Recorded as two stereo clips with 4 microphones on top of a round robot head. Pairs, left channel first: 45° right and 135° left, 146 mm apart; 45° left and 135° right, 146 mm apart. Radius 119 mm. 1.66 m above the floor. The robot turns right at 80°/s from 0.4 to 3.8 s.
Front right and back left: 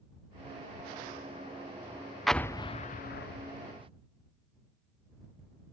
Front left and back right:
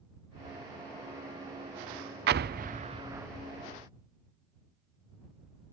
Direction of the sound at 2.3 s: 135° right.